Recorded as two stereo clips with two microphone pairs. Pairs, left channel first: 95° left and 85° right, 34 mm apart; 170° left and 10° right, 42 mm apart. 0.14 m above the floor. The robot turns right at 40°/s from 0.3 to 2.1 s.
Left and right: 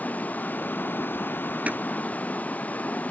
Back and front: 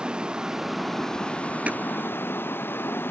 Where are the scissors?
65° right; by 1.8 s 60° right.